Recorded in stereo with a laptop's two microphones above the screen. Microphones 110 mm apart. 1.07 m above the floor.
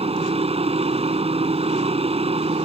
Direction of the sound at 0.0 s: 65° right (ahead or behind).